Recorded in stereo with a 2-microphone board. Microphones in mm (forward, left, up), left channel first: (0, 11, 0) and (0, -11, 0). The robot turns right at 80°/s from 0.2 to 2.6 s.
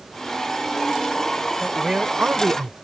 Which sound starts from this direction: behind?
A man speaking, at 1.6 s.